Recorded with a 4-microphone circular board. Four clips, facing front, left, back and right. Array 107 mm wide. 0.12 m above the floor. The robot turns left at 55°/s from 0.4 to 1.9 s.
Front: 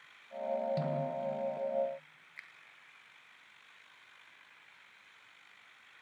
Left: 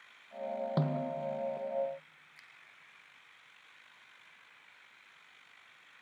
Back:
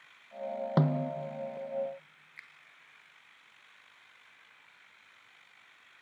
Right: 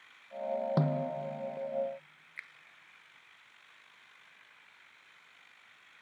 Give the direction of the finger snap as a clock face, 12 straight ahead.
3 o'clock.